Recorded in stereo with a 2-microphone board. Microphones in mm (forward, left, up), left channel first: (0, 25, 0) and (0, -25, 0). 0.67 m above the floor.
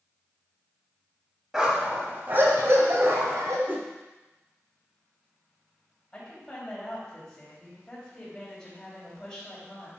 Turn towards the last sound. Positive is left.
turn(degrees=15)  # may be behind; listen again after turning